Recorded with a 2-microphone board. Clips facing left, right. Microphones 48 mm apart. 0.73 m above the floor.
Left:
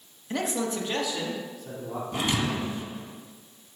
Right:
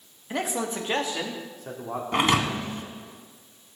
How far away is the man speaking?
About 1.1 m.